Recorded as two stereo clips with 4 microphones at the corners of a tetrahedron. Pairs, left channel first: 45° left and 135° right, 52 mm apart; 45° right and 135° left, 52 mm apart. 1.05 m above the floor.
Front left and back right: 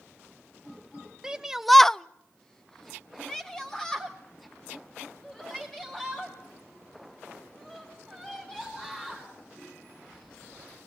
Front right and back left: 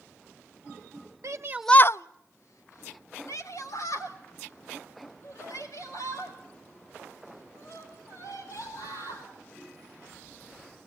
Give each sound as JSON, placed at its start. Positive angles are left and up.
{"t": 1.2, "sound": "a shout", "azimuth_deg": 150, "distance_m": 0.6}